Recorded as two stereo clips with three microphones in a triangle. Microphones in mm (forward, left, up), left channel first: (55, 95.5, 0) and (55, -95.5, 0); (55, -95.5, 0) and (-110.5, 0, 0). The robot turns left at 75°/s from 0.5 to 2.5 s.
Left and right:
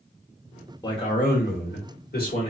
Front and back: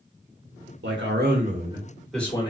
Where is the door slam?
No door slam in this recording.